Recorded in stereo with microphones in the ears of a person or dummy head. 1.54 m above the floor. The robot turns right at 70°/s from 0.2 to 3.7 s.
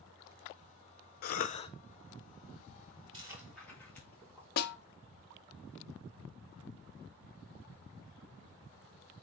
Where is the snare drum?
60° left (ahead or behind), 0.9 m.